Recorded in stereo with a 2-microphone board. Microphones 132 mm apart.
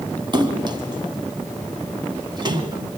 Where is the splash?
35° right (ahead or behind), 1.8 m.